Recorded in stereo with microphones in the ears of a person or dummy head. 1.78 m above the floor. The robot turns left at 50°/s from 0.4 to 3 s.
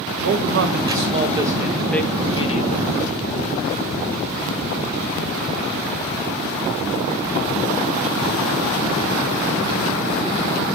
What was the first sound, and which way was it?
A man speaking, 110° right.